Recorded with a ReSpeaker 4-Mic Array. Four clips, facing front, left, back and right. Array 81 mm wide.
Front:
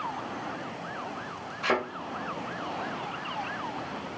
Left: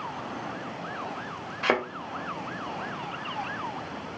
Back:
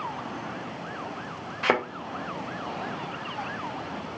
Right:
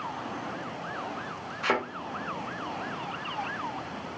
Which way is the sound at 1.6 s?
140° left.